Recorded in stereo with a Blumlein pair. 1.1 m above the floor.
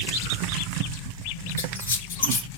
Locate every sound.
1.6 s a squeak: 65° left, 0.5 m